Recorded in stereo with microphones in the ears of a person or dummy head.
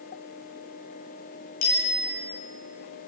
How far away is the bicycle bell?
About 7.5 m.